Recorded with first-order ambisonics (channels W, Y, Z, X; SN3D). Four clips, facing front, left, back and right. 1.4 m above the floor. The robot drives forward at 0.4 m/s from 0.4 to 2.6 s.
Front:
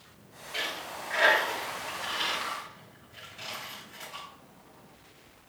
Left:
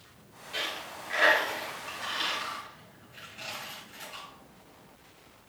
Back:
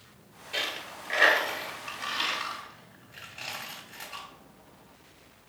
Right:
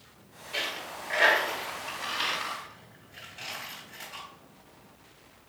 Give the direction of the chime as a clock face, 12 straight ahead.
No chime in this recording.